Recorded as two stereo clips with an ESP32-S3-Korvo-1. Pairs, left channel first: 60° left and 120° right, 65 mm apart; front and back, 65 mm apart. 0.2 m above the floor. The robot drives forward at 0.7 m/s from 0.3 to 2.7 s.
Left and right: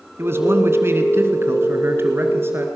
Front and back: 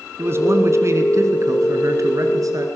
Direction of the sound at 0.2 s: 155° right.